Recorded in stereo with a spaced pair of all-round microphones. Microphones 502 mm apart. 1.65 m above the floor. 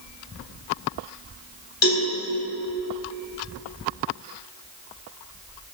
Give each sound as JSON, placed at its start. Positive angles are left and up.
{"t": 1.8, "sound": "a cowbell", "side_deg": 60, "distance_m": 3.5}